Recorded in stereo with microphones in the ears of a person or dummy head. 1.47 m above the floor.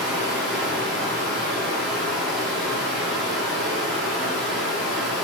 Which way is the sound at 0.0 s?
Centre (ahead or behind).